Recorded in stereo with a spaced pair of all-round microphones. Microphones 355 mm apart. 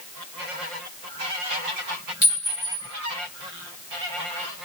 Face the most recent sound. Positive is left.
turn(degrees=-30)  # may be behind; listen again after turning